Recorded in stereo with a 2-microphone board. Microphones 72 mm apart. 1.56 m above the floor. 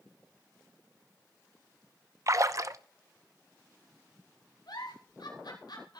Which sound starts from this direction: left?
A giggle, at 4.7 s.